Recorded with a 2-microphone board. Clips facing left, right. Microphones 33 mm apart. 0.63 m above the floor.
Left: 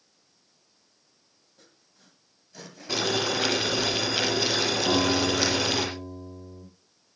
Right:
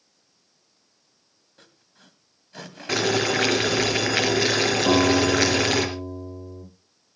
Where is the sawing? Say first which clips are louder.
Right 5 dB; 50° right (ahead or behind), 2 m.